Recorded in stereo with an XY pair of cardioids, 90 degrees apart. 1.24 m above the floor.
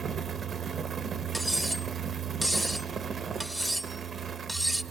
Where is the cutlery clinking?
10° right, 0.9 m.